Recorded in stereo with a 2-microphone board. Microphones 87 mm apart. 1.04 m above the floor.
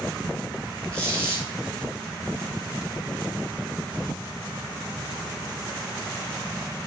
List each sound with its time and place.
0.9 s a squeak: 10° left (ahead or behind), 3.5 m